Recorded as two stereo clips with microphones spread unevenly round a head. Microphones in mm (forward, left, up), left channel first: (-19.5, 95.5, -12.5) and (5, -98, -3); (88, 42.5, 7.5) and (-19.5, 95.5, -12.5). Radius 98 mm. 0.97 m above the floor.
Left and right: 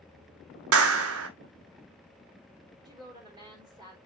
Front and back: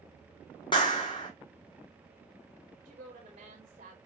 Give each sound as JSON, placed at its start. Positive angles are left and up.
{"t": 0.7, "sound": "a clap", "azimuth_deg": -95, "distance_m": 1.2}
{"t": 2.9, "sound": "a woman speaking", "azimuth_deg": -155, "distance_m": 3.5}